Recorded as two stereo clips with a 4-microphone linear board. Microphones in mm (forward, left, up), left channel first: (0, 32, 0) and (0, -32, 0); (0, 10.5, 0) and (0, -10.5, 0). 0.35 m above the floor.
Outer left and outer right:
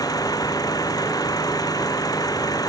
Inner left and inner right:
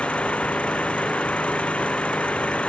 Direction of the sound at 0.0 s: 80° left.